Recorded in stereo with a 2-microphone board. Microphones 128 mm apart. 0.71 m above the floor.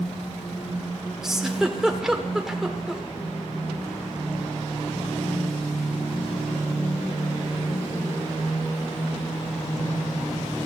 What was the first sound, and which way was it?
A giggle, 5° right (ahead or behind).